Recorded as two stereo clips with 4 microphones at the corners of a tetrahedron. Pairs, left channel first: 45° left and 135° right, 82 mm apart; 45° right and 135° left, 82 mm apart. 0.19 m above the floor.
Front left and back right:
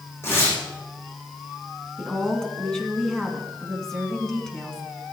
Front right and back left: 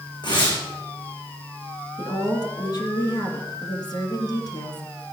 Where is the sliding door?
No sliding door in this recording.